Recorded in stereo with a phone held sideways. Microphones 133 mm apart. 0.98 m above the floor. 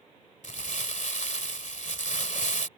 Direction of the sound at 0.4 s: 70° left (ahead or behind).